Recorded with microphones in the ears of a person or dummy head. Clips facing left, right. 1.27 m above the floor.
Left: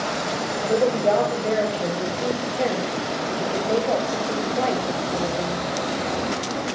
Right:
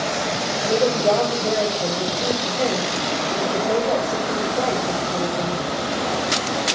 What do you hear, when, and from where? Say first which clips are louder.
0.6 s a woman speaking: right 1 dB; 5° left (ahead or behind), 1.5 m